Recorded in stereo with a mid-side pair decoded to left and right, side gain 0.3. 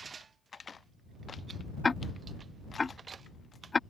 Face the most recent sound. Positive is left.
turn(degrees=45)